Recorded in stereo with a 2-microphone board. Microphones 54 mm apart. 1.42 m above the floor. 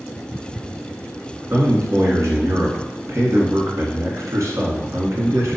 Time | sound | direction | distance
1.5 | a man speaking | 60° right (ahead or behind) | 1.4 m